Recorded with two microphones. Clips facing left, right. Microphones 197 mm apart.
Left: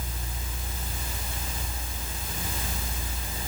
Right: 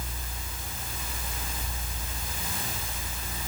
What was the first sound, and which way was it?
Only background noise.